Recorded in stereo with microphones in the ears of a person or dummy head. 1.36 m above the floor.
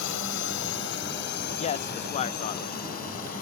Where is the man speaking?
40° left (ahead or behind).